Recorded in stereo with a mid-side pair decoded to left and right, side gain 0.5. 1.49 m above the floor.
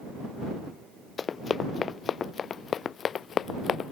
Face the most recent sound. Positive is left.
turn(degrees=55)